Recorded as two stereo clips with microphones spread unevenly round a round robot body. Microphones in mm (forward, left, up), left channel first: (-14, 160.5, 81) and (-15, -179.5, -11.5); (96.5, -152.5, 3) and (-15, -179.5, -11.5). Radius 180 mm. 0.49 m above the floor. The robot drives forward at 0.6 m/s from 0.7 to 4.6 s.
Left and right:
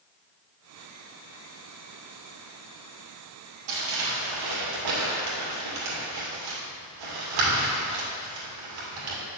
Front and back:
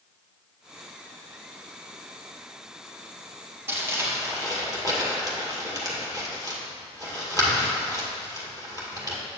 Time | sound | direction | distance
3.7 | crumpling | 95° right | 2 m